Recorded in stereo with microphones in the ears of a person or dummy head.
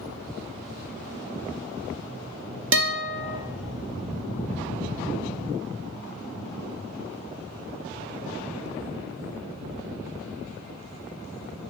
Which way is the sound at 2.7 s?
65° right (ahead or behind).